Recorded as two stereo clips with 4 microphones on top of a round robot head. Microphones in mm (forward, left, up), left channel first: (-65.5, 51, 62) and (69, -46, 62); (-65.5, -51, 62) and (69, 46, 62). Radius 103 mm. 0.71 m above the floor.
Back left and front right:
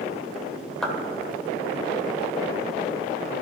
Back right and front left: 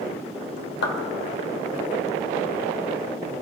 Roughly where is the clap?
Behind right.